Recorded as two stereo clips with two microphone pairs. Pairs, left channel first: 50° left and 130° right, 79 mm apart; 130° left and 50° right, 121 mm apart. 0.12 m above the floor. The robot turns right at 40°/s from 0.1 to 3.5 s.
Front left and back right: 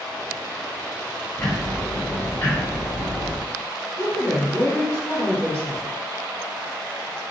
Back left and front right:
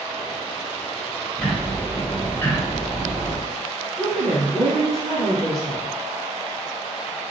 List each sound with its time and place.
1.4 s ticking: 50° left, 1.7 m; by 3.4 s 130° left, 1.7 m
4.0 s a woman speaking: 145° right, 1.7 m